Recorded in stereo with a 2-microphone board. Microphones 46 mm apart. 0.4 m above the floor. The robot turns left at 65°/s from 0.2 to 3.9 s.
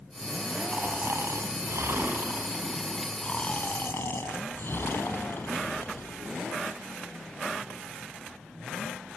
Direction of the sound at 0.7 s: 35° right.